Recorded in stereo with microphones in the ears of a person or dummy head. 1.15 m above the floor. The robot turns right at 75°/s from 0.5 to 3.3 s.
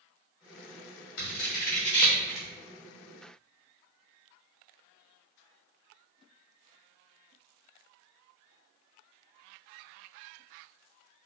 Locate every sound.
1.2 s scissors: 65° left (ahead or behind), 0.7 m; by 2.5 s 10° right (ahead or behind), 0.7 m